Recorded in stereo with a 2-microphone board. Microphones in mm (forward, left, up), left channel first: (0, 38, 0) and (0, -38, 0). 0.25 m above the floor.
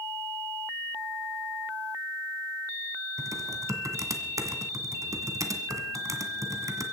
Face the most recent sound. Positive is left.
turn(degrees=-45)  # may be behind; listen again after turning